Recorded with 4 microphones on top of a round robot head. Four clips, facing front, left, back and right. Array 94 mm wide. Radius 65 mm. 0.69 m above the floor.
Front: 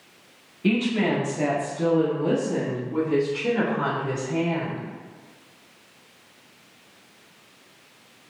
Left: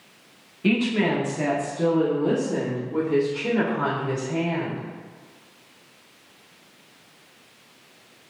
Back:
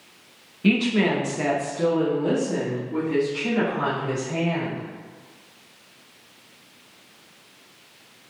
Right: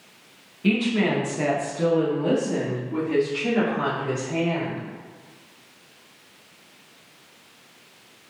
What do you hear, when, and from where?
0.6 s a woman speaking: 135° left, 1.1 m; by 4.8 s 105° right, 3.5 m